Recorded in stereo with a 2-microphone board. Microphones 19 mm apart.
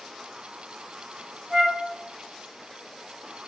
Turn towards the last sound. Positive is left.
turn(degrees=-40)  # may be behind; listen again after turning